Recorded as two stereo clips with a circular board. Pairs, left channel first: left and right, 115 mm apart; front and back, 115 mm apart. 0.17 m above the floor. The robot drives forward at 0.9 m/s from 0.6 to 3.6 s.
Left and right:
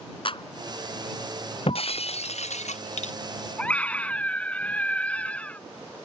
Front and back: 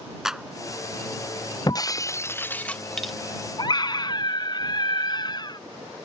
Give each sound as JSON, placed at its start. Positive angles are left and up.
{"t": 0.2, "sound": "a clap", "azimuth_deg": 95}
{"t": 1.7, "sound": "breaking glass", "azimuth_deg": 55}
{"t": 3.6, "sound": "a scream", "azimuth_deg": 20}